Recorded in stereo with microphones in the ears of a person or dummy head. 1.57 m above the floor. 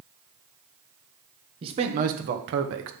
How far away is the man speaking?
About 1.1 m.